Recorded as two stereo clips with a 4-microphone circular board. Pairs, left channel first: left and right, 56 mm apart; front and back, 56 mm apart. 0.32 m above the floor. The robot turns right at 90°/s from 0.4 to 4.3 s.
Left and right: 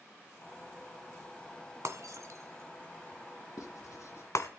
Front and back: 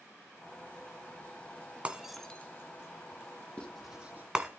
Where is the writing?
65° left, 3 m; by 4.3 s 130° left, 3 m.